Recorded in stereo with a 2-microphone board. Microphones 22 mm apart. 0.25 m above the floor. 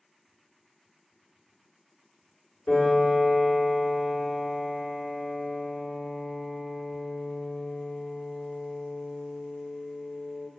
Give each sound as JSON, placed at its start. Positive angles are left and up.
{"t": 2.7, "sound": "a piano", "side_deg": 70, "distance_m": 1.3}